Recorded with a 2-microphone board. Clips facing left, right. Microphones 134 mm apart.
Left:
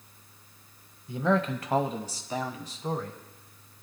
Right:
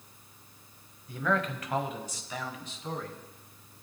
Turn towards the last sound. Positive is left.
turn(degrees=40)  # may be behind; listen again after turning